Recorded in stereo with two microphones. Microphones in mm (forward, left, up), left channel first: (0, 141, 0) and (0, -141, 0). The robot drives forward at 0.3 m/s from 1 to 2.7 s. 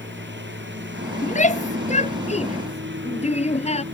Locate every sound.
0.0 s a lawn mower: 40° right (ahead or behind)
1.2 s a shout: 25° left (ahead or behind)